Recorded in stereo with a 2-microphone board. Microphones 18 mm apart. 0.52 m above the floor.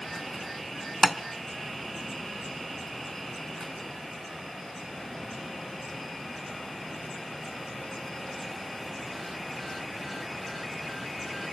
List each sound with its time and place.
1.0 s tapping: centre (ahead or behind), 0.8 m